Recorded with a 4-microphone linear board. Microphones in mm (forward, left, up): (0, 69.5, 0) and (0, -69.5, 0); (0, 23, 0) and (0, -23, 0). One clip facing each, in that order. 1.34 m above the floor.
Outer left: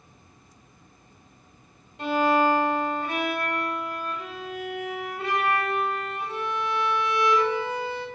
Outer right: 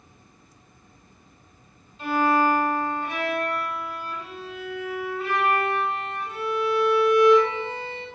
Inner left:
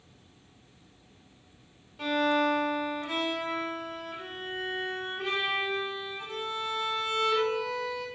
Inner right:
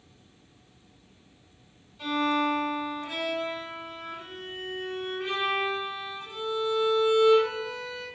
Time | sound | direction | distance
2.0 | a violin | 70° left (ahead or behind) | 1.7 m